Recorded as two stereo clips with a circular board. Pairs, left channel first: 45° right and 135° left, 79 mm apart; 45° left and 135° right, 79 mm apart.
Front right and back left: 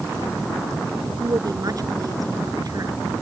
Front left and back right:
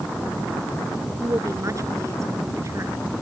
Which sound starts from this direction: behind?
A woman speaking, at 1.2 s.